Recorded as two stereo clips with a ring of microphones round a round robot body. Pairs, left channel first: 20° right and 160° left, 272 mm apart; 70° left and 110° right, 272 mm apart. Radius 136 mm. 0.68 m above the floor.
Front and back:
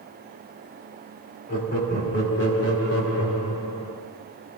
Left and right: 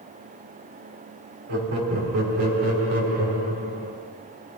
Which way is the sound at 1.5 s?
80° right.